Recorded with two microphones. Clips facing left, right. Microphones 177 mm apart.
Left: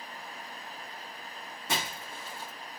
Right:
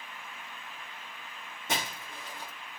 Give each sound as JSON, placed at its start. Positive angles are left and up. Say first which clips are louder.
{"t": 1.7, "sound": "breaking glass", "louder": "even", "side_deg": -20, "distance_m": 2.5}